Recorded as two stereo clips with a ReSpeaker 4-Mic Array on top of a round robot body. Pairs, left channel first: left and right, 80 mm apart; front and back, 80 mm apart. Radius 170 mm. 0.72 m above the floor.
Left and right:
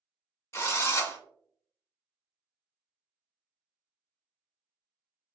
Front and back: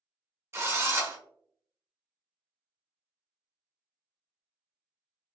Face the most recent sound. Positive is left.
turn(degrees=135)